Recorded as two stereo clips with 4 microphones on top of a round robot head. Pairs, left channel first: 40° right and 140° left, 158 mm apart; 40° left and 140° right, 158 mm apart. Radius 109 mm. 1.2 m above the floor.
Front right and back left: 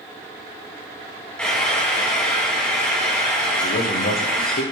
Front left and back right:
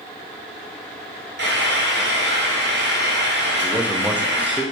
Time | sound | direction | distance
1.4 | frying | 125° right | 1.9 m
3.6 | a man speaking | 60° right | 1.0 m